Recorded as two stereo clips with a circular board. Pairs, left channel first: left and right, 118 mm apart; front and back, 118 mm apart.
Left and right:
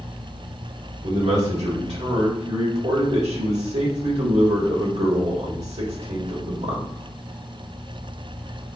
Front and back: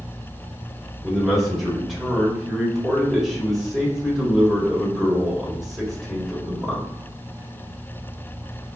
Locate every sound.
1.0 s a man speaking: 90° right, 1.4 m